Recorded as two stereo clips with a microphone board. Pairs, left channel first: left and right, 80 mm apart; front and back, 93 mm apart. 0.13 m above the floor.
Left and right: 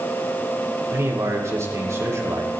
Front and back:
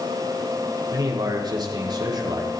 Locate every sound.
0.9 s a man speaking: 145° right, 6.5 m